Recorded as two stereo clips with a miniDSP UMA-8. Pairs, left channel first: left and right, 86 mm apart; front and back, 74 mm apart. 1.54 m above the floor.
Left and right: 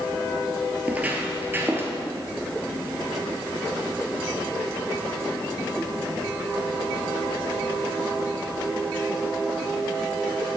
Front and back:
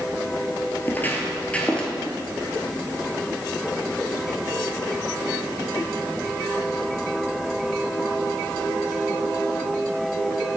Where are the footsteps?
30° right, 1.7 m; by 1.9 s 65° right, 1.7 m.